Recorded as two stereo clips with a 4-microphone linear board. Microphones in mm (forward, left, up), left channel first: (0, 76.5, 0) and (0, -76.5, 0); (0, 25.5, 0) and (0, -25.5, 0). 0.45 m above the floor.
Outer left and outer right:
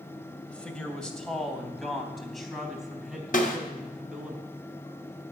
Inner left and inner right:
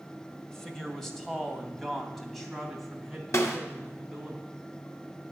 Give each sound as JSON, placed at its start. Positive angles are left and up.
{"t": 0.5, "sound": "a man speaking", "side_deg": 10, "distance_m": 2.0}
{"t": 3.3, "sound": "a snare drum", "side_deg": 65, "distance_m": 2.0}